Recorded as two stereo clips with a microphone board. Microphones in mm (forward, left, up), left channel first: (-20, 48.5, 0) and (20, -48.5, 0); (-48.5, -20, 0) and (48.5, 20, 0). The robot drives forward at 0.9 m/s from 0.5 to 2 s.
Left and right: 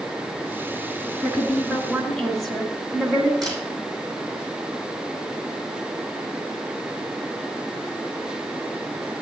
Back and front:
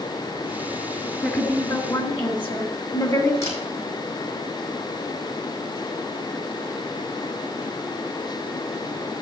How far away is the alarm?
No alarm in this recording.